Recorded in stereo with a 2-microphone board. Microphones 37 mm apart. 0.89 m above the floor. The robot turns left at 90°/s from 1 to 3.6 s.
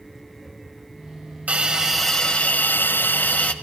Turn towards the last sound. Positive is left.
turn(degrees=35)